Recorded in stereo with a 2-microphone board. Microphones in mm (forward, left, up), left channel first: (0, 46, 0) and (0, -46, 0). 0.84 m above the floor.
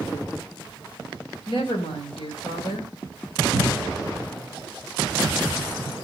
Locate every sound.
1.5 s a woman speaking: 80° left, 2.5 m
3.5 s a cupboard door: 70° left (ahead or behind), 4 m